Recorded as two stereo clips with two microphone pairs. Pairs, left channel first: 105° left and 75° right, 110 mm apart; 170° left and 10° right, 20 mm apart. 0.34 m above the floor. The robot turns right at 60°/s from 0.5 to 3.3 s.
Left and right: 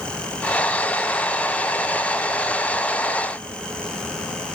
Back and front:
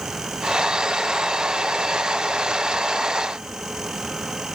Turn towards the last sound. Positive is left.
No sound to turn to.